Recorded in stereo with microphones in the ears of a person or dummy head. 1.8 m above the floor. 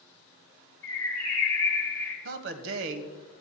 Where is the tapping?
No tapping in this recording.